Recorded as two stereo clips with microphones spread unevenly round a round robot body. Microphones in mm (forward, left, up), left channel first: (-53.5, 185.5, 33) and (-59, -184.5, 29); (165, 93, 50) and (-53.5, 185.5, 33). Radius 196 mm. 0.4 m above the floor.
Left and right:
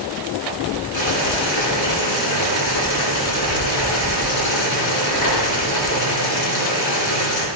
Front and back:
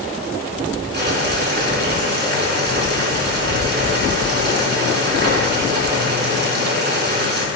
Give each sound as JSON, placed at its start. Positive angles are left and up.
{"t": 0.9, "sound": "boiling", "azimuth_deg": 115, "distance_m": 4.5}